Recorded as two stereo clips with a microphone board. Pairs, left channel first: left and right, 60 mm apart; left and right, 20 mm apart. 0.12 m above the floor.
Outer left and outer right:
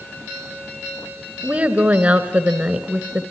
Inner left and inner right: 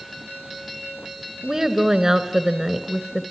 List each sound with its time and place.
1.4 s a woman speaking: 25° right (ahead or behind), 1.4 m